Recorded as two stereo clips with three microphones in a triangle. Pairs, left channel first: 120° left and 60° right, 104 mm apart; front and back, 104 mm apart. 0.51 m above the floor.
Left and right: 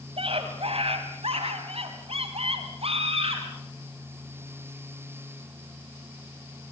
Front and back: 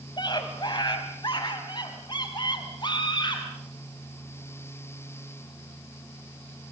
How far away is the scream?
About 3 m.